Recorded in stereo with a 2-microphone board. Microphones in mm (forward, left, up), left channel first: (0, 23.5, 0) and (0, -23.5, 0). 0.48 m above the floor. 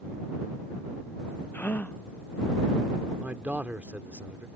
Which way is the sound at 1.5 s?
40° left (ahead or behind).